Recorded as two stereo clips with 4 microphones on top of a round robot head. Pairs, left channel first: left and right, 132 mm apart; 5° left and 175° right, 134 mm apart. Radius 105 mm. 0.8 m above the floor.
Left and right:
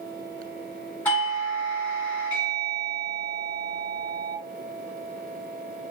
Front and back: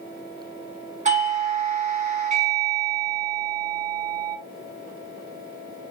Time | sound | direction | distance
1.1 | a doorbell | 165° left | 1.3 m